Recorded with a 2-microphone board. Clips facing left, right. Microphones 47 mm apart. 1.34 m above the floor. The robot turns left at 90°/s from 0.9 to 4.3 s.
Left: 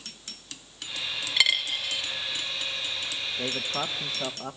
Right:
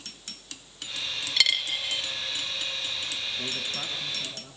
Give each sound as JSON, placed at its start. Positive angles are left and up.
{"t": 1.4, "sound": "a dropped coin", "side_deg": 15, "distance_m": 0.8}
{"t": 3.4, "sound": "a man speaking", "azimuth_deg": 150, "distance_m": 1.7}